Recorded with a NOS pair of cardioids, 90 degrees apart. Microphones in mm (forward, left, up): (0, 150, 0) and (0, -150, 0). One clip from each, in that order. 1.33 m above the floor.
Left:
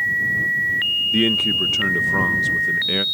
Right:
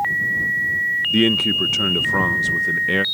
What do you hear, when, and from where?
1.1 s a man speaking: 15° right